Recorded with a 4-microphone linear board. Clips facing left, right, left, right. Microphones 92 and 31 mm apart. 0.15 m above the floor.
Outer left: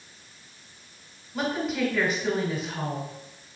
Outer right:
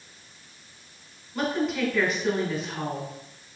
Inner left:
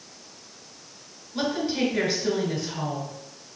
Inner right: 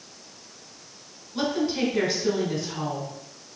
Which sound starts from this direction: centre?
A woman speaking, at 1.3 s.